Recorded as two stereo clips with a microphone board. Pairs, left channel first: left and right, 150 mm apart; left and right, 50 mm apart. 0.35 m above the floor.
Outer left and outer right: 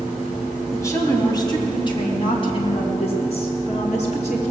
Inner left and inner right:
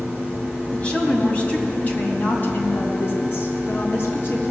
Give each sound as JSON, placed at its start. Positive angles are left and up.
{"t": 0.7, "sound": "a woman speaking", "side_deg": 20, "distance_m": 2.5}